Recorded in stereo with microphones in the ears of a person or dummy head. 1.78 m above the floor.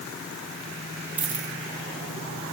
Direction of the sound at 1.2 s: 10° right (ahead or behind).